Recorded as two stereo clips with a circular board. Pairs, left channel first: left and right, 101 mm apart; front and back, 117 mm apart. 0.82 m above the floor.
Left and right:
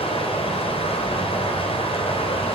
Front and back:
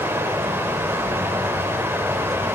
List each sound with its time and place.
0.0 s running water: 110° left, 3.5 m